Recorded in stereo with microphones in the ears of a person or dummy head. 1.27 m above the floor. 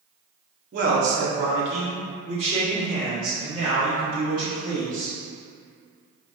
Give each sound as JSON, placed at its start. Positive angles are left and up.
{"t": 0.7, "sound": "a man speaking", "side_deg": -45, "distance_m": 0.8}